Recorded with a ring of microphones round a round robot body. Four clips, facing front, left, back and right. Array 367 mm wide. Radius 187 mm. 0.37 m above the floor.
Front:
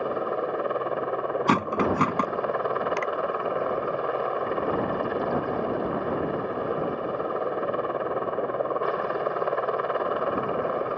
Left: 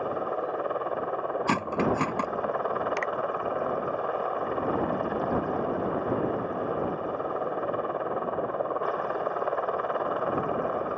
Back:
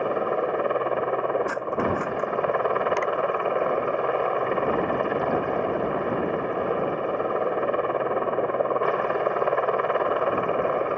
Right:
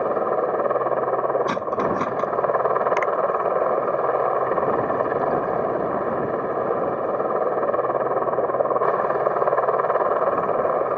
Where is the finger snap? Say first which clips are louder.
Right 9 dB, back 3 dB; 85° right.